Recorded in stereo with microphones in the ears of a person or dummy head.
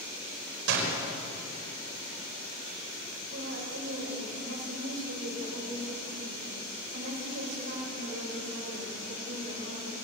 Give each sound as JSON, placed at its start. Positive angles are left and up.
{"t": 0.7, "sound": "a door slam", "side_deg": -70, "distance_m": 4.5}
{"t": 3.3, "sound": "a woman speaking", "side_deg": -85, "distance_m": 7.5}